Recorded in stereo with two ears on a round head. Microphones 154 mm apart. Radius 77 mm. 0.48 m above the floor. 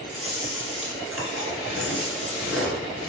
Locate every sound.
0.1 s chewing: 5° right (ahead or behind), 1.0 m